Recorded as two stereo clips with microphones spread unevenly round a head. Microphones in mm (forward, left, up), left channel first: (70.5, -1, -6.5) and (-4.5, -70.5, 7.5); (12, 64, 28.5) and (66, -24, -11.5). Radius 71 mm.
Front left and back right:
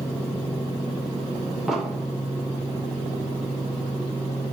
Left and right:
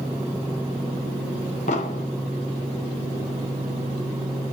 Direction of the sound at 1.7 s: 135° left.